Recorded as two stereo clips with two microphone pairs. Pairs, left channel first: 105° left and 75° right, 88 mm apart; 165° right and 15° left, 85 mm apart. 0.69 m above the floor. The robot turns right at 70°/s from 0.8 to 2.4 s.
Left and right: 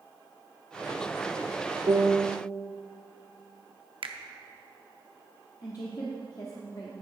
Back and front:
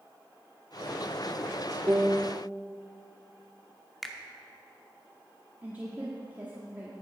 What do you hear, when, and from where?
1.9 s a piano: 50° right, 0.6 m; by 2.4 s 15° right, 0.6 m
4.0 s a finger snap: 80° right, 0.8 m
5.6 s a woman speaking: 75° left, 1.1 m